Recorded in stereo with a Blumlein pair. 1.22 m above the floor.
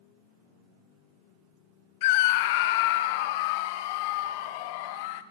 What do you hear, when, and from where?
2.0 s a scream: 50° left, 0.7 m